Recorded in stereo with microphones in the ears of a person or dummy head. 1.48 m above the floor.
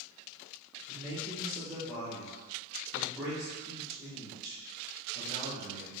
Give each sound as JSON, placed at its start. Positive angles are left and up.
{"t": 0.9, "sound": "a man speaking", "side_deg": 0, "distance_m": 1.3}